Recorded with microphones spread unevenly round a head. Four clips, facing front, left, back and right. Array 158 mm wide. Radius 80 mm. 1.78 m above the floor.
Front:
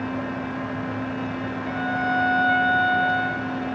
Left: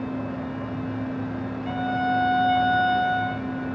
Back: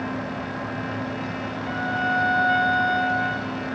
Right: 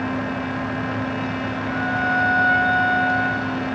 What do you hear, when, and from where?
1.7 s a violin: 80° left, 0.8 m